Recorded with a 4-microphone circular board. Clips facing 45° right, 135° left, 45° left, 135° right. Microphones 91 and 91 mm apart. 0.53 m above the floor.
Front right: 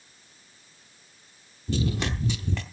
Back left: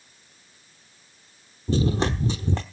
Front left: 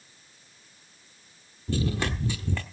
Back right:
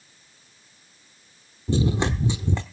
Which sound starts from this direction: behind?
Running footsteps, at 1.7 s.